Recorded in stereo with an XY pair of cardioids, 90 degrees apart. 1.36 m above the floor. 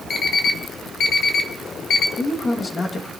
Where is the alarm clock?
65° left, 1.9 m.